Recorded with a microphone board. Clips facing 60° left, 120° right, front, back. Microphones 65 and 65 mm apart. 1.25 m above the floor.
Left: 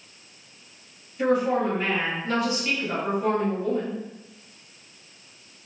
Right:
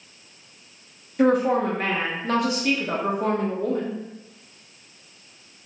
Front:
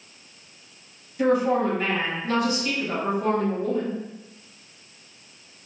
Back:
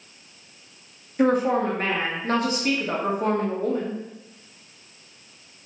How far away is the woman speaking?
About 1.3 m.